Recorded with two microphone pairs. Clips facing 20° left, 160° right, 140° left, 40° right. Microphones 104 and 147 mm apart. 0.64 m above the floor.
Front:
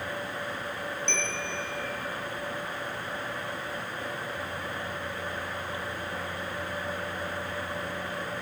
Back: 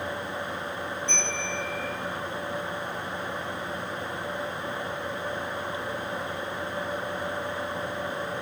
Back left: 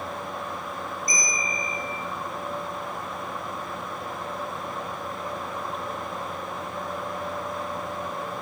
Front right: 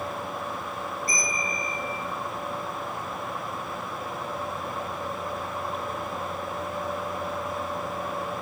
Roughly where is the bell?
Ahead.